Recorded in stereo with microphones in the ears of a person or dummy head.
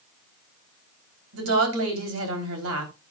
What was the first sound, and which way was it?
A woman speaking, 80° right.